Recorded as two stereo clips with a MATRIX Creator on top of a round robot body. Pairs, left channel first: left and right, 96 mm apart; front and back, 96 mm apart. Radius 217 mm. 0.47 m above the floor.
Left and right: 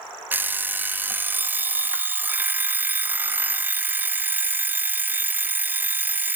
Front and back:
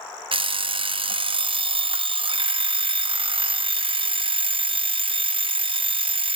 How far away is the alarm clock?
About 0.7 m.